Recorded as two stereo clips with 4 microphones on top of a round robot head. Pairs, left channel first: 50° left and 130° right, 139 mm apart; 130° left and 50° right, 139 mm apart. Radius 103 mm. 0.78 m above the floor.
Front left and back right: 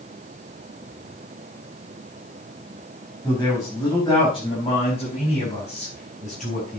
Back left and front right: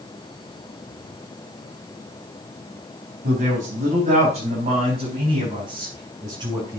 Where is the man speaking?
20° right, 5 m; by 6.8 s 15° left, 6.5 m.